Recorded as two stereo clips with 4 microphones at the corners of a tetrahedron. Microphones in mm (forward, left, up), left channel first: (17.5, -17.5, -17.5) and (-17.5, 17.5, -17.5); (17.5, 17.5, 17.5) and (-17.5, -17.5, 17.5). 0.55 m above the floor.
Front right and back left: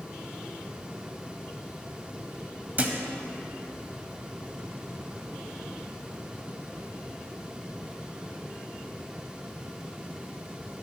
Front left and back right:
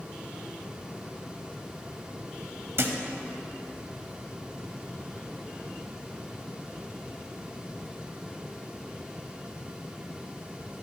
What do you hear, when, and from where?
2.8 s a thud: 170° right, 0.9 m